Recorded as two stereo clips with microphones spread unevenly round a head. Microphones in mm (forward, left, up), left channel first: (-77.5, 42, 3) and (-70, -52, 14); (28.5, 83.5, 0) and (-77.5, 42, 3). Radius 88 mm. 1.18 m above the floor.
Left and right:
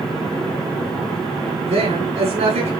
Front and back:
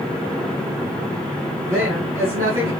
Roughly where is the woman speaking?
Right.